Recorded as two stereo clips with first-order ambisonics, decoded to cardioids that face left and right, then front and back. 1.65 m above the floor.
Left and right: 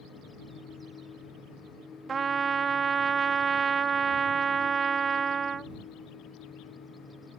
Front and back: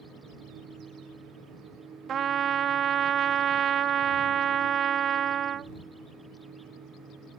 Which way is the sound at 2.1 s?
145° right.